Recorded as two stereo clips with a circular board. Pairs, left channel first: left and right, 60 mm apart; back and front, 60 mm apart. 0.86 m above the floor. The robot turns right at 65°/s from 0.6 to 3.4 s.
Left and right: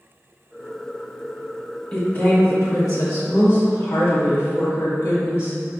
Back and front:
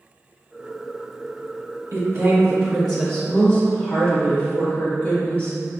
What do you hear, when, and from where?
1.9 s a woman speaking: 25° left, 1.9 m; by 5.6 s 120° left, 1.9 m